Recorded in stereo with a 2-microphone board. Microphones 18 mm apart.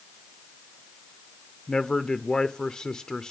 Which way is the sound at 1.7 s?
40° left (ahead or behind).